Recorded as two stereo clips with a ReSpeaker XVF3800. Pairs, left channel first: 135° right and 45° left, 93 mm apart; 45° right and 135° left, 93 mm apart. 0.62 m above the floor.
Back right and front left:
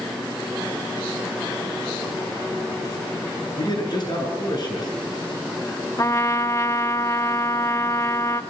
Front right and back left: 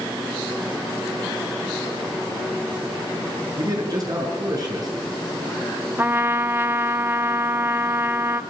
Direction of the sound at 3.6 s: 175° right.